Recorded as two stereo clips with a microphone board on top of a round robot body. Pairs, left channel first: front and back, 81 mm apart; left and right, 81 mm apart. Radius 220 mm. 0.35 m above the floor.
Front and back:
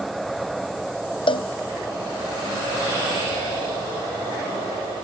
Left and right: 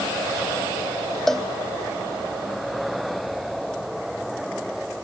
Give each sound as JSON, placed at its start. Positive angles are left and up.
{"t": 1.3, "sound": "a cowbell", "azimuth_deg": 5}